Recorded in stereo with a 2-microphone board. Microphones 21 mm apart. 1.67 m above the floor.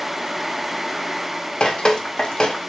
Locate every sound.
1.6 s dripping: 35° left (ahead or behind), 0.6 m